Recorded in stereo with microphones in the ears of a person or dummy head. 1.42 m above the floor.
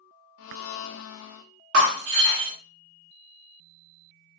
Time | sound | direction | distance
0.4 | a blender | 65° left (ahead or behind) | 0.5 m
1.7 | breaking glass | 55° right (ahead or behind) | 0.9 m